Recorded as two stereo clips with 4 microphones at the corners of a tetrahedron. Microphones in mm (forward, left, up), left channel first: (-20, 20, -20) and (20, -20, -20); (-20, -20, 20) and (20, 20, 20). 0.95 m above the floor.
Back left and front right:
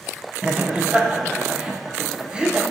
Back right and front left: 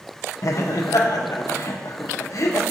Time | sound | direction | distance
0.4 | laughter | 115° right | 0.5 m